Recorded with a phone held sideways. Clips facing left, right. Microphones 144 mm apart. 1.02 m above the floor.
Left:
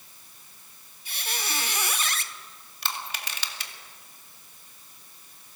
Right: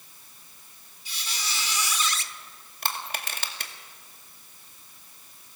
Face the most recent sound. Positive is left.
turn(degrees=-50)  # may be behind; listen again after turning